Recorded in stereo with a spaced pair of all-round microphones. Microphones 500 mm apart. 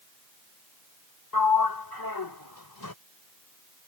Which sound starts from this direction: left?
A sliding door, at 1.3 s.